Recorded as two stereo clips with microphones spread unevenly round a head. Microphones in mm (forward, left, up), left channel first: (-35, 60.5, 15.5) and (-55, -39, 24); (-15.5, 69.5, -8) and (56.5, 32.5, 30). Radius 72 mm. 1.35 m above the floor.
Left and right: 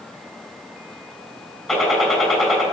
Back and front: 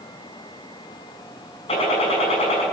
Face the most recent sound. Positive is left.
turn(degrees=165)